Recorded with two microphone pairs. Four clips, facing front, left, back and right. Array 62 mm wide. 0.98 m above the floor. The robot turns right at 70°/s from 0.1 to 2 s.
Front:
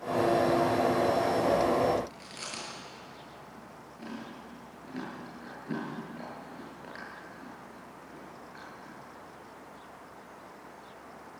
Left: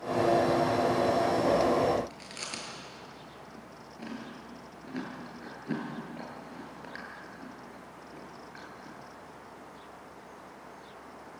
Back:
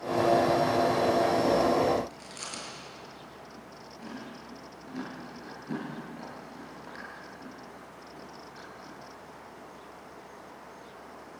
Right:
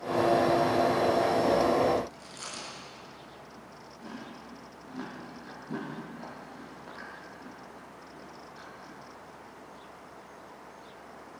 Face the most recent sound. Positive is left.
turn(degrees=75)